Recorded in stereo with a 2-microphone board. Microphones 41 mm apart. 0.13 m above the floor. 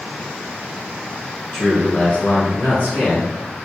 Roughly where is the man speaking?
Centre.